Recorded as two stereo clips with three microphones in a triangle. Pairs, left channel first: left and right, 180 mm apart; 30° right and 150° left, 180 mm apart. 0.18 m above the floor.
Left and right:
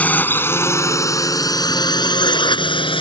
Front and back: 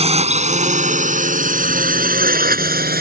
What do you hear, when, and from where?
0.0 s a drone: 165° left; by 3.0 s 145° left